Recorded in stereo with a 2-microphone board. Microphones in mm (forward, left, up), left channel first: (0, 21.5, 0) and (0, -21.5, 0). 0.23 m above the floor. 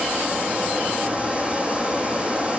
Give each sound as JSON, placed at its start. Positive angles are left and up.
{"t": 0.0, "sound": "running water", "side_deg": -30, "distance_m": 3.5}